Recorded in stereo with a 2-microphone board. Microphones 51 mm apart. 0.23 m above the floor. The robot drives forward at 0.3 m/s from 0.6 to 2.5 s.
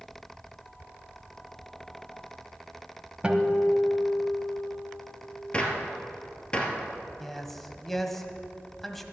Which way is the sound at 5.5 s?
20° left (ahead or behind).